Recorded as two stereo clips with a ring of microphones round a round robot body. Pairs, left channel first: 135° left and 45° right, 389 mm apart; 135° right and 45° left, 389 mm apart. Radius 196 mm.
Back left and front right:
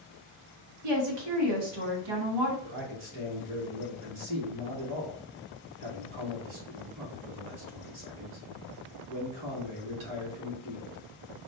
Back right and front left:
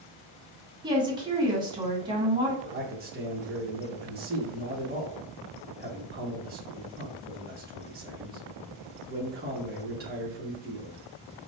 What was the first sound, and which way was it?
A woman speaking, 35° right.